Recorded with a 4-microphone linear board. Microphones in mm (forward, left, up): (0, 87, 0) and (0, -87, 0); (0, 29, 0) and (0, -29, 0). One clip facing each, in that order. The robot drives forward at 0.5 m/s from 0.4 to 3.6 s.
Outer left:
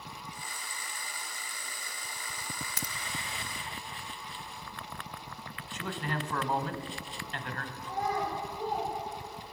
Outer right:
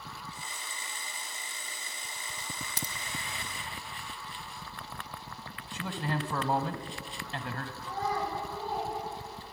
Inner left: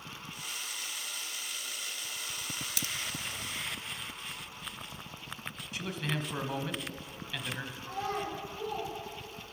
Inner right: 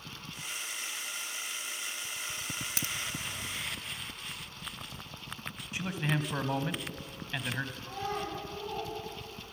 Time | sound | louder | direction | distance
2.8 | a crack | outer right 1 dB, inner right 1 dB | 30° right (ahead or behind) | 0.7 m
5.7 | a man speaking | outer right 2 dB, inner right 3 dB | 35° right (ahead or behind) | 1.1 m
7.8 | a child speaking | outer left 1 dB, inner left 5 dB | 30° right (ahead or behind) | 7.5 m